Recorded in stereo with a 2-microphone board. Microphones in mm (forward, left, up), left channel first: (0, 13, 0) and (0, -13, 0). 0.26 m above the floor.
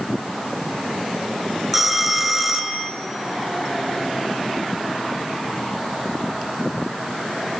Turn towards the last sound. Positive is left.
turn(degrees=-5)  # may be behind; listen again after turning